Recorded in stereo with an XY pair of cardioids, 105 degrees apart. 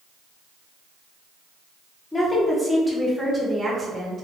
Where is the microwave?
No microwave in this recording.